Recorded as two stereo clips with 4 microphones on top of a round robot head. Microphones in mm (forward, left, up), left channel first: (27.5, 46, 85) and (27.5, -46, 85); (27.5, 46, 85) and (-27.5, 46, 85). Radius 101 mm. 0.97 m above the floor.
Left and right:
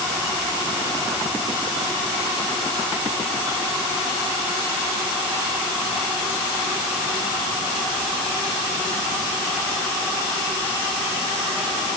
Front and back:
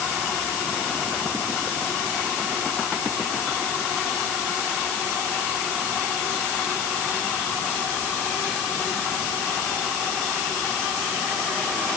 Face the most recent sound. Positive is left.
No sound to turn to.